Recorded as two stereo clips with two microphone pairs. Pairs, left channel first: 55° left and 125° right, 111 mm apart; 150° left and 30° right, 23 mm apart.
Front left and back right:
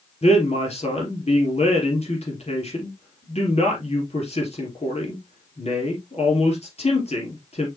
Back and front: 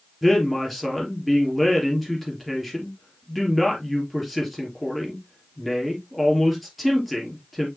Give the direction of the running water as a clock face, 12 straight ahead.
No running water in this recording.